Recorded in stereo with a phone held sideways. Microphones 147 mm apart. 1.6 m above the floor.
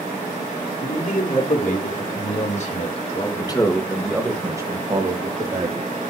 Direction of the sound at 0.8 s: 75° left (ahead or behind).